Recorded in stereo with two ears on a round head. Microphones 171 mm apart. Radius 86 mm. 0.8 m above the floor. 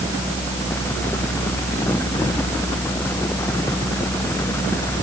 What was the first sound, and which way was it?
Only background noise.